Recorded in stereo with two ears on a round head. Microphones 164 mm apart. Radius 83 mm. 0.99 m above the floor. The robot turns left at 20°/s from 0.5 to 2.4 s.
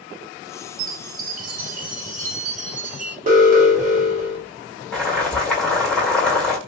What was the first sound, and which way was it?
A chime, 75° right.